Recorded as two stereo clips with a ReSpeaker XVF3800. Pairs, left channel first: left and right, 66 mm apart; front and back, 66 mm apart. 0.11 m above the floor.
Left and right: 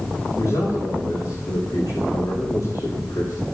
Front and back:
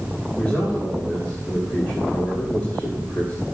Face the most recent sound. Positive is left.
turn(degrees=65)